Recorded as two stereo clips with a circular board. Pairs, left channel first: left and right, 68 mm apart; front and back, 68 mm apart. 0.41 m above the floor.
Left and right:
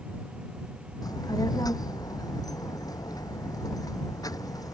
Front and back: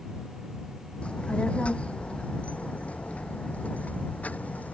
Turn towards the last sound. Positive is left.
turn(degrees=65)